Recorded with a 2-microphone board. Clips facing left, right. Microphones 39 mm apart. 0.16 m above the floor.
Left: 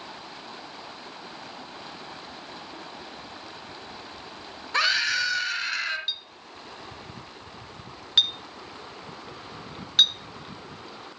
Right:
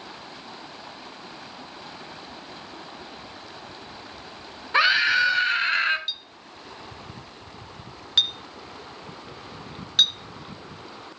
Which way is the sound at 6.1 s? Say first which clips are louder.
Even; 5° left (ahead or behind).